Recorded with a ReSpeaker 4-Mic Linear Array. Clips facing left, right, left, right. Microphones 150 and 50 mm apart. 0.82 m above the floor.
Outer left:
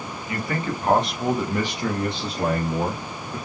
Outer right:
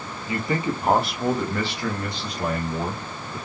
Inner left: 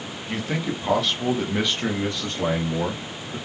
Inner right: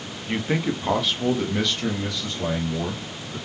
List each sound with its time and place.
0.3 s a man speaking: 30° right (ahead or behind), 1.1 m; by 3.4 s 50° left (ahead or behind), 1.6 m